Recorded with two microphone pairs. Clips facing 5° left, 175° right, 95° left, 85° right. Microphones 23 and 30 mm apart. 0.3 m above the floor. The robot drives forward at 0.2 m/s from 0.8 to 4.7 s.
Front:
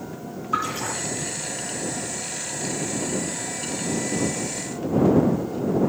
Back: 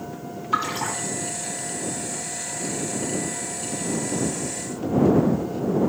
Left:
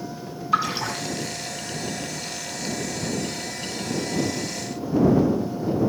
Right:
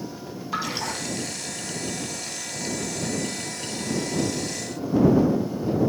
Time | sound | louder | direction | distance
0.5 | a splash | back 1 dB, left 5 dB | straight behind | 2.5 m